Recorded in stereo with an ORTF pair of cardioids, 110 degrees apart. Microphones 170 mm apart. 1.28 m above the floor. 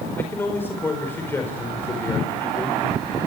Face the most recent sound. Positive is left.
turn(degrees=15)